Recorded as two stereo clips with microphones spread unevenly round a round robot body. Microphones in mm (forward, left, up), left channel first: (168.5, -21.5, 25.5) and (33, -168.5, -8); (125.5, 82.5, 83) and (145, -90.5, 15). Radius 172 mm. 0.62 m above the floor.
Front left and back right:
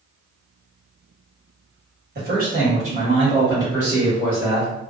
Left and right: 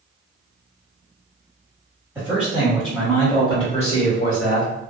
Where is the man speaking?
145° right, 1.4 m; by 4.7 s 125° left, 1.1 m.